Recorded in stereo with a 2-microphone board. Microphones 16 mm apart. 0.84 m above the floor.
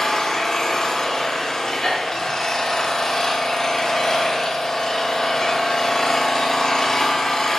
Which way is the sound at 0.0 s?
35° left (ahead or behind).